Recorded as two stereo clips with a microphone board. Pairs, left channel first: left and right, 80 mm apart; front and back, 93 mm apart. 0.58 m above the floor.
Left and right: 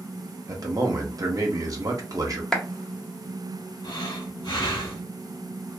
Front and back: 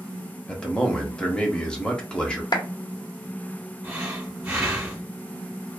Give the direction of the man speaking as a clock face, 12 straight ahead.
3 o'clock.